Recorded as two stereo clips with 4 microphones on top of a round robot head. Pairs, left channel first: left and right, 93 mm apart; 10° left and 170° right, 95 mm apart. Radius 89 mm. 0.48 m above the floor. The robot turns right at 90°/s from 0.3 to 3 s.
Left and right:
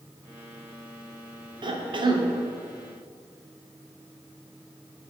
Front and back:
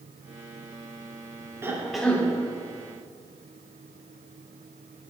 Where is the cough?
110° right, 1.1 m; by 2.3 s 55° right, 1.1 m.